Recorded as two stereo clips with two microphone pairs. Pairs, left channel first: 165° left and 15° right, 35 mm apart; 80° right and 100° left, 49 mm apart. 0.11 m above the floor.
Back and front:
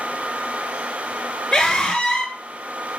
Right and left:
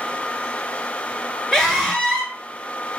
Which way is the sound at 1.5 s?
140° right.